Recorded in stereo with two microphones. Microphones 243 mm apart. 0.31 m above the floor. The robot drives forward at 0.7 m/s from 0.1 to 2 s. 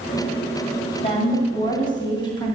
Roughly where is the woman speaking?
Left.